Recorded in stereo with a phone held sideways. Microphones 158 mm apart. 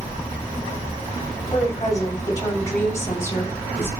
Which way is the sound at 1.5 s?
25° left (ahead or behind).